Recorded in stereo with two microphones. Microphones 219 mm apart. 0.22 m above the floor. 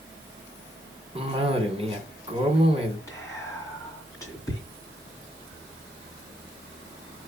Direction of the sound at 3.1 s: 15° left (ahead or behind).